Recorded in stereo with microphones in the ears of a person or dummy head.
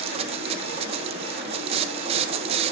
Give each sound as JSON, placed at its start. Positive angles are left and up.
{"t": 0.0, "sound": "a machine running", "side_deg": -40, "distance_m": 1.6}